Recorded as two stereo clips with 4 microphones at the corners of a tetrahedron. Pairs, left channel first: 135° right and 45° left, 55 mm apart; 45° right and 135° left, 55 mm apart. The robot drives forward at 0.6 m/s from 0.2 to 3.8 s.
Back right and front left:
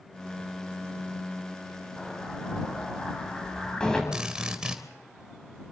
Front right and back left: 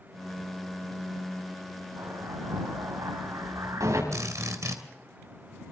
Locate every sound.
2.0 s an explosion: 140° left, 7 m; by 4.0 s 145° left, 8 m
4.1 s a drill: 120° left, 3 m